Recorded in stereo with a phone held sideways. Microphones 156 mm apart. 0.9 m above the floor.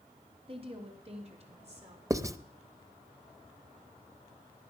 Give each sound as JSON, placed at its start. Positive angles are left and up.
{"t": 0.5, "sound": "a woman speaking", "side_deg": -35, "distance_m": 2.5}
{"t": 2.1, "sound": "writing", "side_deg": -20, "distance_m": 0.5}